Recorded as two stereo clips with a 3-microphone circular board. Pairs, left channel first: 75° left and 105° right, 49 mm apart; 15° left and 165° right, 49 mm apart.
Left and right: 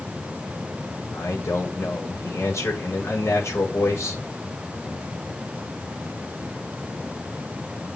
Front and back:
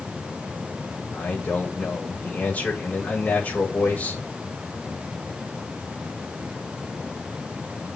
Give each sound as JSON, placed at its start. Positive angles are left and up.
{"t": 1.1, "sound": "a man speaking", "azimuth_deg": 70, "distance_m": 5.5}